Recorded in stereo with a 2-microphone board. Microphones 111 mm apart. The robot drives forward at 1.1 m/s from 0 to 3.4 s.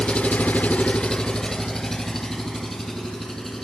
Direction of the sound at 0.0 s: 10° left (ahead or behind).